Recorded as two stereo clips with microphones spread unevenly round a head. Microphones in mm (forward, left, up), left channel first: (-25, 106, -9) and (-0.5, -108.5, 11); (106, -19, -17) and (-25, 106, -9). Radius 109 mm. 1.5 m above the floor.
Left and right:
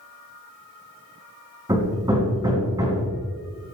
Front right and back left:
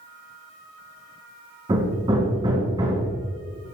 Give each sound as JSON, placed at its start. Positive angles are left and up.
{"t": 1.7, "sound": "hammering", "azimuth_deg": -155, "distance_m": 3.5}